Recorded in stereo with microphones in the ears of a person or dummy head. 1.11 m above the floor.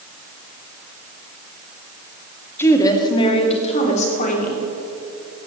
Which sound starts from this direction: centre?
A woman speaking, at 2.6 s.